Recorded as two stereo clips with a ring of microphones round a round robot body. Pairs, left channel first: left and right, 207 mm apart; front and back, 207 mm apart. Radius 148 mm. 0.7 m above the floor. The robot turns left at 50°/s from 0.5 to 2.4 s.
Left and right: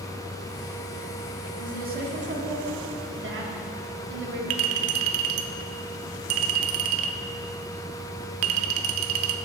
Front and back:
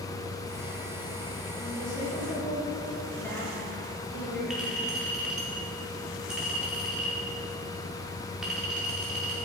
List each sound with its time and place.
1.6 s a woman speaking: 40° right, 1.8 m; by 4.4 s 80° right, 1.8 m
4.5 s a clink: 95° right, 0.6 m